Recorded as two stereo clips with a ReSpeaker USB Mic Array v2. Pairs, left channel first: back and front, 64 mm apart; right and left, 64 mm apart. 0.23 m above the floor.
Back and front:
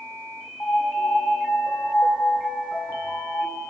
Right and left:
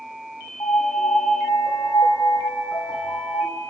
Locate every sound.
0.6 s a piano: 110° right, 3 m